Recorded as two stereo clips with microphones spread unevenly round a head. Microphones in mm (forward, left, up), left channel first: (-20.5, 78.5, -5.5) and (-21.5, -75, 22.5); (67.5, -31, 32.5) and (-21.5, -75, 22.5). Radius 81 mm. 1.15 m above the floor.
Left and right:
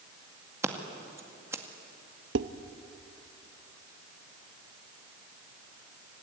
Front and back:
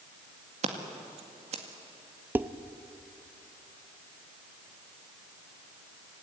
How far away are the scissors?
About 2.0 m.